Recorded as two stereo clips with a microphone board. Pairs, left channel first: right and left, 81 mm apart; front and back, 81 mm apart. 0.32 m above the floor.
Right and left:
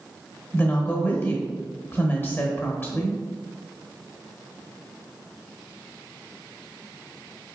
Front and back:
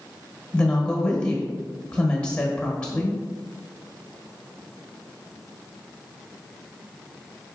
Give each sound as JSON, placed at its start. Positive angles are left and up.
{"t": 0.5, "sound": "a woman speaking", "azimuth_deg": -65, "distance_m": 1.1}